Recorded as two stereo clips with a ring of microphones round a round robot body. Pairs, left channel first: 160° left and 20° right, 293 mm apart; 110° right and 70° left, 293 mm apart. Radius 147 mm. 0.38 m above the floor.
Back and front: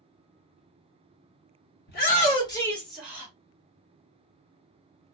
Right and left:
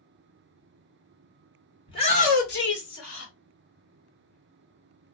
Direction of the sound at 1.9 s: 175° right.